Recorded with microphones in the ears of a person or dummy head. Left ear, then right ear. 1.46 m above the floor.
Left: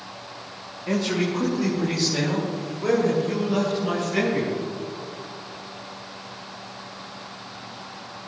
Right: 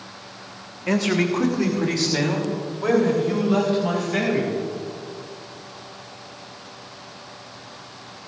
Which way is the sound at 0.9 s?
30° right (ahead or behind).